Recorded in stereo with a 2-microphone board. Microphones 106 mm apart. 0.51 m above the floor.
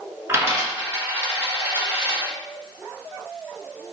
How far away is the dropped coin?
About 1.1 m.